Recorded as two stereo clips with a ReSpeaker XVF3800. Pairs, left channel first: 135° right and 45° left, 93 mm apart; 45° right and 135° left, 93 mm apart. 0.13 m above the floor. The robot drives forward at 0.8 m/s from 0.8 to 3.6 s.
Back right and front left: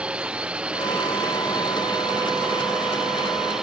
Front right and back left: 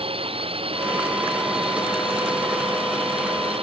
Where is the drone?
125° left; by 3.6 s 130° left.